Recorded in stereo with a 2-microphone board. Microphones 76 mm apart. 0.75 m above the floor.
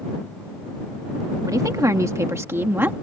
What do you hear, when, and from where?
1.5 s a woman speaking: 50° right (ahead or behind); by 2.9 s 25° right (ahead or behind)